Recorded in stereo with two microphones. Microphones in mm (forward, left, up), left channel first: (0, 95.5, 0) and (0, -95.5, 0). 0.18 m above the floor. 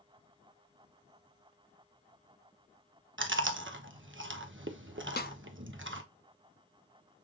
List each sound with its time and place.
3.2 s chewing: 80° right, 0.8 m
5.2 s a snare drum: 50° left (ahead or behind), 0.5 m